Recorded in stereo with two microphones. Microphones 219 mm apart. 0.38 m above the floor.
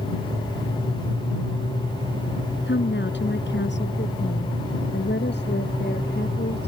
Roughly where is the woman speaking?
Left.